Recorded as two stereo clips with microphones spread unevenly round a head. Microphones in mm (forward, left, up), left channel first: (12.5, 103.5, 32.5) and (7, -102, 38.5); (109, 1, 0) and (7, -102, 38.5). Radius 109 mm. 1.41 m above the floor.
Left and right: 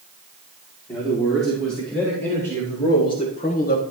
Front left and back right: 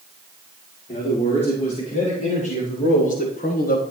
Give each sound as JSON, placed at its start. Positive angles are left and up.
{"t": 0.9, "sound": "a man speaking", "azimuth_deg": 0, "distance_m": 5.0}